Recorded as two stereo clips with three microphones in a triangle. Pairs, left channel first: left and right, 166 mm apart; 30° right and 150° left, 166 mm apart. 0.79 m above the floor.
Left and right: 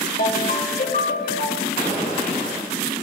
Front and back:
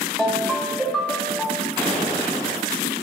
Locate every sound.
0.2 s a ringtone: 60° left, 1.8 m
1.8 s an explosion: 85° left, 6.5 m